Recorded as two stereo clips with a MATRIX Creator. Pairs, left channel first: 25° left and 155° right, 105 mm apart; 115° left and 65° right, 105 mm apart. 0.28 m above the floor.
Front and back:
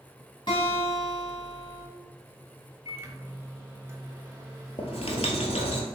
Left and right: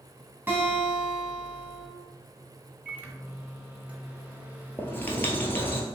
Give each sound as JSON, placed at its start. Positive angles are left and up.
{"t": 0.5, "sound": "a guitar", "azimuth_deg": 0, "distance_m": 1.6}
{"t": 2.9, "sound": "a microwave", "azimuth_deg": -125, "distance_m": 0.8}
{"t": 4.8, "sound": "writing", "azimuth_deg": 45, "distance_m": 0.9}